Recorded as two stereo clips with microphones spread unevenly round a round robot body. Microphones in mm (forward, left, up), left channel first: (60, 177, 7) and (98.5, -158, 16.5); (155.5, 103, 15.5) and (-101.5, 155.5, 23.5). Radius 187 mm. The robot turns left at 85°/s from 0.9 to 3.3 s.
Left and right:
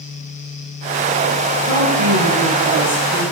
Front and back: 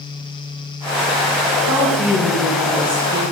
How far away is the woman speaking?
About 3.5 m.